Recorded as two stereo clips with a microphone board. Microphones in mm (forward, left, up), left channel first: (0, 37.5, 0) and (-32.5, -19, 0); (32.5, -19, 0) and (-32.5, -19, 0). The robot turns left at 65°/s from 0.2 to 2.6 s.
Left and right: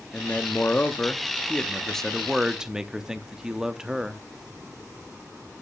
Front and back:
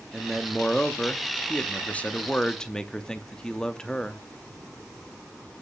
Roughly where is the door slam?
No door slam in this recording.